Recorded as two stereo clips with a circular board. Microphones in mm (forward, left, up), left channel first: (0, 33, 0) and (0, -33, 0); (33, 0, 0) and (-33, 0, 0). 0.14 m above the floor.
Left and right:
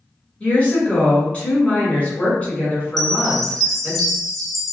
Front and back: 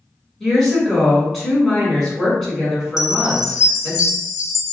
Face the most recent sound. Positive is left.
turn(degrees=0)